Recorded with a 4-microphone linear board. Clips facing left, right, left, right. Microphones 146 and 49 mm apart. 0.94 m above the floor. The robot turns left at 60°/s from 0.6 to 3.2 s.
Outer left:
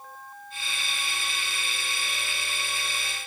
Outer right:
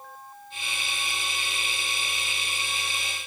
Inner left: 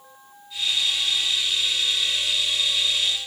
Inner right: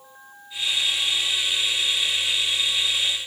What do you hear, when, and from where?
Only background noise.